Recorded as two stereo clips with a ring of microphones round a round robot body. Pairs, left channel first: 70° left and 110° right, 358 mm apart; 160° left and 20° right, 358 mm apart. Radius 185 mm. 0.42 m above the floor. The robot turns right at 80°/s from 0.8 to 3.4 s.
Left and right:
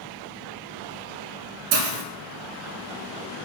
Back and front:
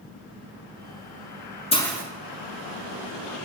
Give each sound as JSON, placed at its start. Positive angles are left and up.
{"t": 1.7, "sound": "a hiss", "azimuth_deg": -130, "distance_m": 1.2}